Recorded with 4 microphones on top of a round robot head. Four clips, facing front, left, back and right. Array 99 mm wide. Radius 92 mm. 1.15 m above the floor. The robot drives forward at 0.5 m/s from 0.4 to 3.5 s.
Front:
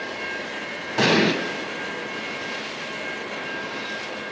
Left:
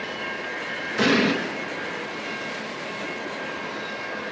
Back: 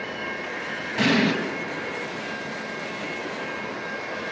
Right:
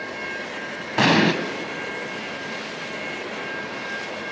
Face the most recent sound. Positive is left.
turn(degrees=-125)